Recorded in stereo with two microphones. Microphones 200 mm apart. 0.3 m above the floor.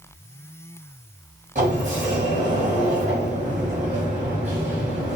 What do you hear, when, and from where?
1.6 s a sliding door: 40° right (ahead or behind), 1.9 m